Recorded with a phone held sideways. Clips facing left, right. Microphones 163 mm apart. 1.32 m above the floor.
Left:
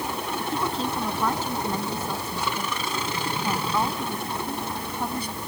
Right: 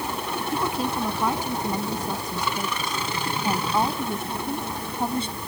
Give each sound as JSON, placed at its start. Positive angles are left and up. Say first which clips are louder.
{"t": 0.5, "sound": "a woman speaking", "louder": "right 2 dB", "side_deg": -10}